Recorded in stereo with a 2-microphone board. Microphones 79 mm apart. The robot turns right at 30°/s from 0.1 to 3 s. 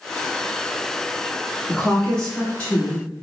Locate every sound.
1.7 s a woman speaking: 5° left, 1.3 m; by 3.2 s 45° left, 1.3 m